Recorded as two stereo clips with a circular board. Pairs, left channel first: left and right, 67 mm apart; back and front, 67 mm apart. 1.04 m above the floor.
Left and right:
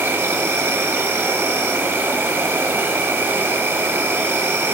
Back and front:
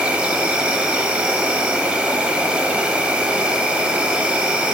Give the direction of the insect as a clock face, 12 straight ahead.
2 o'clock.